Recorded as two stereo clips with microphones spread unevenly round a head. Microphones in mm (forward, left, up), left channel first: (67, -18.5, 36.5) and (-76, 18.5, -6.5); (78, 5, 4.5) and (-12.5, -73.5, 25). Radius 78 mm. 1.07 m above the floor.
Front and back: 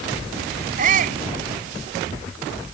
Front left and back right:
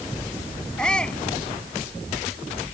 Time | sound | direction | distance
0.8 | a shout | 125° left | ?